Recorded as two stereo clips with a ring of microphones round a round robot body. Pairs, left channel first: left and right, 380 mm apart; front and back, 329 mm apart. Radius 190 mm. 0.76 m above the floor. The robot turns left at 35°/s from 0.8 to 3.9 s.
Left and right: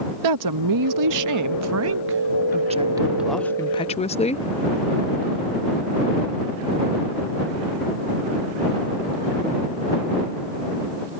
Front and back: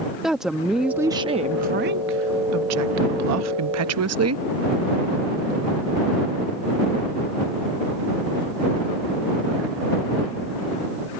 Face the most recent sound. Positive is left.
turn(degrees=160)